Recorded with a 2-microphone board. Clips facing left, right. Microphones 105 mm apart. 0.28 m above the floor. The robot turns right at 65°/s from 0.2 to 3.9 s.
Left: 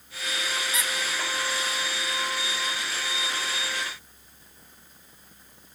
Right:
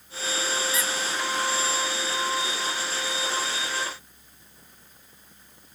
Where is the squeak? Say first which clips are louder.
Right 2 dB; 25° left (ahead or behind), 0.7 m; by 0.9 s 20° left (ahead or behind), 0.7 m.